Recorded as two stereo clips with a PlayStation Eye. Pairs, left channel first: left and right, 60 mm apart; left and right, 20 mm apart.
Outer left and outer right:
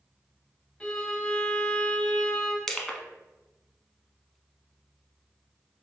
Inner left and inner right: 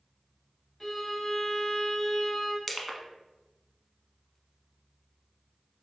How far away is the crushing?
About 0.7 m.